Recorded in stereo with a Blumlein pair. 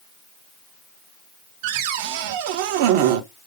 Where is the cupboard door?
50° right, 1.0 m.